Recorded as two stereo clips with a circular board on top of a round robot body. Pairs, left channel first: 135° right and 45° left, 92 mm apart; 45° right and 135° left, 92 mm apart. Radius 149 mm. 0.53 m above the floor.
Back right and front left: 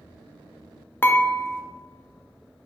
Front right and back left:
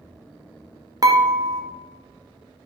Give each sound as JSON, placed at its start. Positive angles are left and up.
{"t": 1.0, "sound": "dishes clattering", "azimuth_deg": 165, "distance_m": 0.6}